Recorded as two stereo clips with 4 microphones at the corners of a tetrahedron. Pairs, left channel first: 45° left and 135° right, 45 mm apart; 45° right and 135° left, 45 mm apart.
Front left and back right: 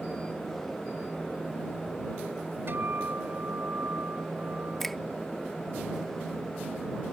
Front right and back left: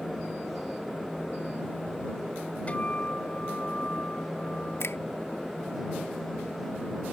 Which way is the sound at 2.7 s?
100° right.